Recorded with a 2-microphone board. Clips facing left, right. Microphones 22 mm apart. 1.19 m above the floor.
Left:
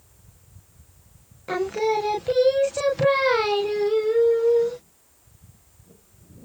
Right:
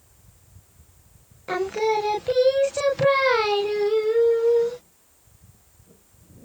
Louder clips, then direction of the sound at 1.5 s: Even; 5° right (ahead or behind).